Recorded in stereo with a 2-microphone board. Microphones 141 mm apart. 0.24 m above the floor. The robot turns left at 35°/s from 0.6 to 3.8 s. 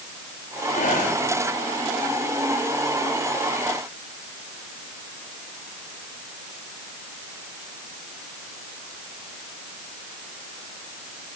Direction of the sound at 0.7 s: 55° left (ahead or behind).